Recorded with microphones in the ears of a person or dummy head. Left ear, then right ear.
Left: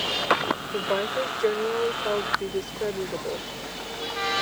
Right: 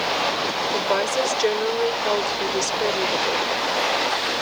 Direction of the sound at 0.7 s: 80° right.